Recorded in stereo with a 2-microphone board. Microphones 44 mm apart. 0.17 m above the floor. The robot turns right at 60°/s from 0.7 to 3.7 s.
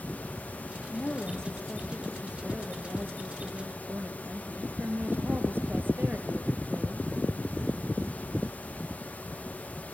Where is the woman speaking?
130° left, 4 m; by 7.1 s 65° right, 4 m.